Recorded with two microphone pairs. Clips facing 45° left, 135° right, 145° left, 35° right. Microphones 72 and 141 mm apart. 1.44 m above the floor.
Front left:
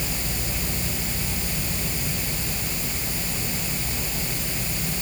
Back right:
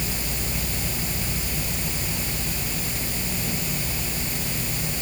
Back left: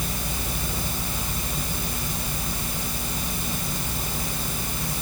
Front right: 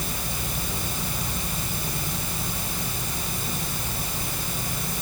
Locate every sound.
Only background noise.